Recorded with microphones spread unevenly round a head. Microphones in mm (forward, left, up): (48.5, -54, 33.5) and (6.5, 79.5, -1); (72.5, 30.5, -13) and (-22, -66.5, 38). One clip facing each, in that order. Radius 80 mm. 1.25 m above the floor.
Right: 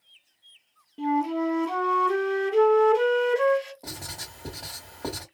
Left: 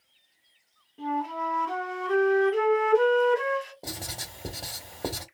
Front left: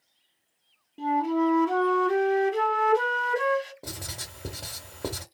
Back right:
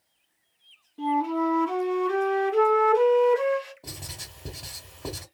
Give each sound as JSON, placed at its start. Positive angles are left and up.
{"t": 1.0, "sound": "a flute", "azimuth_deg": -25, "distance_m": 1.2}
{"t": 3.8, "sound": "writing", "azimuth_deg": 40, "distance_m": 1.5}